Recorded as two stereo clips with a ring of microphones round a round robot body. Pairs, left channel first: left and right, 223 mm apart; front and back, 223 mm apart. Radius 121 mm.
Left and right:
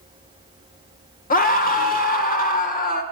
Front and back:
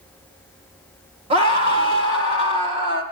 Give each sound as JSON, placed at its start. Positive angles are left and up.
{"t": 1.3, "sound": "a scream", "azimuth_deg": 125, "distance_m": 1.7}